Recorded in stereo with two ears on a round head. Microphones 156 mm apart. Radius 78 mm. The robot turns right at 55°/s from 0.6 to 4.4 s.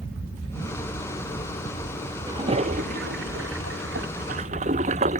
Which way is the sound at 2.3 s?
20° right (ahead or behind).